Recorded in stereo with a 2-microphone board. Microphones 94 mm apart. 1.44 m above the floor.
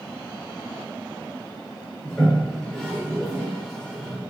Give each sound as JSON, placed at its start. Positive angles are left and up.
{"t": 2.0, "sound": "a toilet flushing", "side_deg": 5, "distance_m": 1.2}